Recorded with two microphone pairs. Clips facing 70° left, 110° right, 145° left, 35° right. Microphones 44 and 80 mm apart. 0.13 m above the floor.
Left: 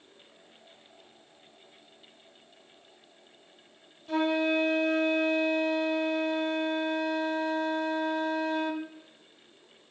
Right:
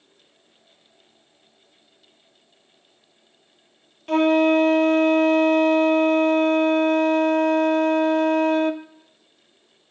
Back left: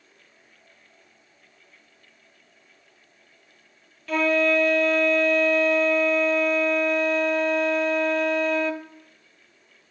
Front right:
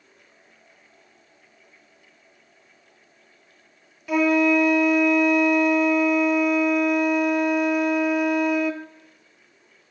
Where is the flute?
115° right, 0.8 m.